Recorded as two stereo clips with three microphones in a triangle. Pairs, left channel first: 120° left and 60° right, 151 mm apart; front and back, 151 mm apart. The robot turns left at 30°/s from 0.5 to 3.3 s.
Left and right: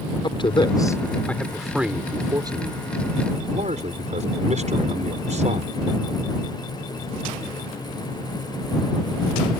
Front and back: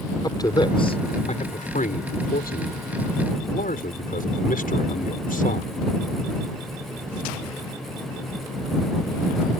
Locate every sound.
0.2 s a man speaking: 65° left; by 5.7 s 20° right